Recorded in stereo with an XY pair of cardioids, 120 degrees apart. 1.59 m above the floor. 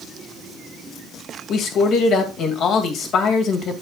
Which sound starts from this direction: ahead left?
A man speaking, at 1.5 s.